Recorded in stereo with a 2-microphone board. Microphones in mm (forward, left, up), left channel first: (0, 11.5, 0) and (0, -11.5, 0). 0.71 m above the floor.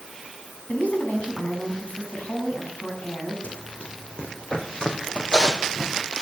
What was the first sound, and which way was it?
A woman speaking, 80° left.